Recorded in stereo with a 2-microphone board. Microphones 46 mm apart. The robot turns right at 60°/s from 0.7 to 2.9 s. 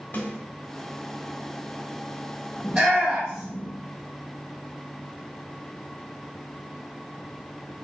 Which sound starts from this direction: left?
A snare drum, at 0.1 s.